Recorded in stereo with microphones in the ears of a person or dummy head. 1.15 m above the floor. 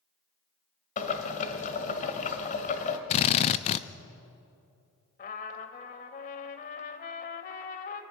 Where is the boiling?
40° left (ahead or behind), 1.7 m.